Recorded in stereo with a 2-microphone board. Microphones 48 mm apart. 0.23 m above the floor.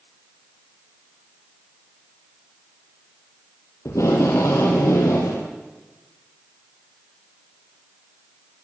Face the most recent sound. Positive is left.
turn(degrees=80)